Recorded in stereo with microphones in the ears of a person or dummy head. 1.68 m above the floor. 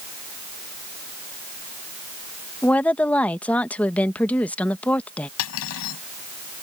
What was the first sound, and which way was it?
A woman speaking, 5° left (ahead or behind).